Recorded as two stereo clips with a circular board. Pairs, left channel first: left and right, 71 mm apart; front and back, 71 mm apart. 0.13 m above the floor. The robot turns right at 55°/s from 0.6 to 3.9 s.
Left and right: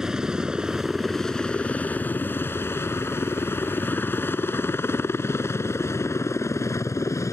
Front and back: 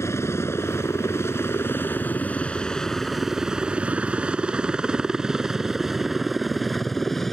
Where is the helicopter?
15° right; by 7.3 s 85° left.